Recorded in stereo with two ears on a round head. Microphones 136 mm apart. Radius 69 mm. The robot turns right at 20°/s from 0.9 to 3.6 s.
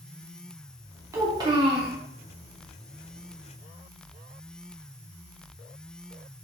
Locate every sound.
1.1 s a child speaking: 20° right (ahead or behind), 0.8 m; by 1.9 s 35° right (ahead or behind), 0.8 m